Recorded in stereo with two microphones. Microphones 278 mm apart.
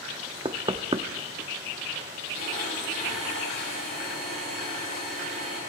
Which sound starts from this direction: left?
A blender, at 2.4 s.